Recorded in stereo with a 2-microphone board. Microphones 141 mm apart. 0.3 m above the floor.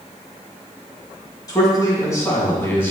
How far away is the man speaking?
About 3 m.